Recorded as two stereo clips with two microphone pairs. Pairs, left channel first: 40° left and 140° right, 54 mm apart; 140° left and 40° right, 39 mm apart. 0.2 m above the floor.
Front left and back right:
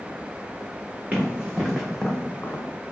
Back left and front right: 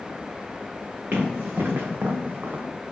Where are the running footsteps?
75° right, 1.1 m; by 2.6 s 5° left, 0.6 m.